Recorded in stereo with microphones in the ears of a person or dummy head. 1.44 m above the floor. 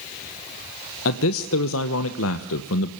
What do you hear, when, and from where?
1.1 s a man speaking: 80° left, 1.3 m